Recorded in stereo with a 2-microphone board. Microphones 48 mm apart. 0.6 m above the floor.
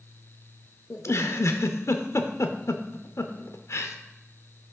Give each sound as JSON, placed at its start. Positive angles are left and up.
{"t": 0.9, "sound": "a giggle", "side_deg": 80, "distance_m": 0.6}